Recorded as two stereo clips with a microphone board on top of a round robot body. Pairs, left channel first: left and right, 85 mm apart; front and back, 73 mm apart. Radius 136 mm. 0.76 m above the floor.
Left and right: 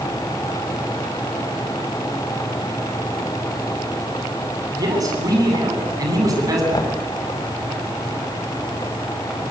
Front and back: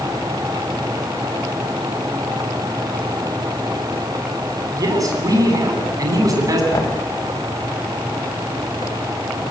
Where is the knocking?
45° left, 3.5 m.